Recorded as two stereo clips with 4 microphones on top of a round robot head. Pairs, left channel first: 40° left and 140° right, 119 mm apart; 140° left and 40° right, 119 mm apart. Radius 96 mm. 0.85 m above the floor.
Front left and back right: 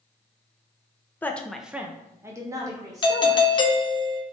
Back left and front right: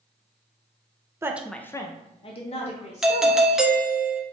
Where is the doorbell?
40° left, 0.8 m.